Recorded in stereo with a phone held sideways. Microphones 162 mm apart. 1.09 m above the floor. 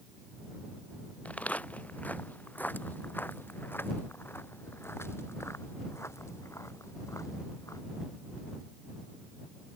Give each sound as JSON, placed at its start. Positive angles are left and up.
{"t": 1.2, "sound": "footsteps", "side_deg": 10}